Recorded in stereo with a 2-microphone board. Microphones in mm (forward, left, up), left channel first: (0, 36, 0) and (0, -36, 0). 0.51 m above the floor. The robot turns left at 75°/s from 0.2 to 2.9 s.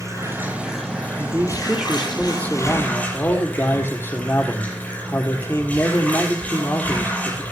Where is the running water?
135° right, 6 m; by 7.5 s 20° left, 6 m.